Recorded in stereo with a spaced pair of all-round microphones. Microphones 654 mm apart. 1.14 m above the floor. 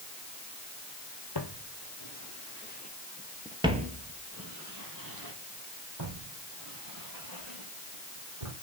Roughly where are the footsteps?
Left.